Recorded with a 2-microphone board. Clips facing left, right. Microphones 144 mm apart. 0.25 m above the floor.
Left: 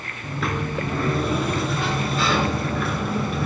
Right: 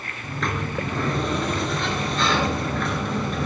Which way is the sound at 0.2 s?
5° left (ahead or behind).